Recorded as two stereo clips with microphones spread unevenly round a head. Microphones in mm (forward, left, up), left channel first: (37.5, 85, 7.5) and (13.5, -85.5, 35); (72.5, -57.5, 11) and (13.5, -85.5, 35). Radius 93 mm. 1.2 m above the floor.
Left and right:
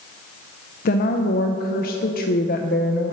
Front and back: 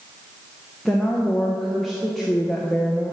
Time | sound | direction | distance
0.8 | a woman speaking | 110° left | 0.7 m